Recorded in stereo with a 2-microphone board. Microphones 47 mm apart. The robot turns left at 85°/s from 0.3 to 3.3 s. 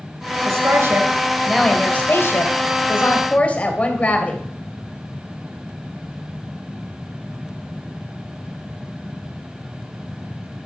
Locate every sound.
0.5 s a woman speaking: 85° right, 2.5 m; by 4.4 s 35° left, 2.5 m